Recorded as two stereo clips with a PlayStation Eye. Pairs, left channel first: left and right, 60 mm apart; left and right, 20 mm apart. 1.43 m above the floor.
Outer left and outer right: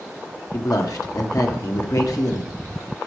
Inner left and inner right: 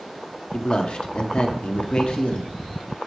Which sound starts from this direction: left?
A man speaking, at 0.5 s.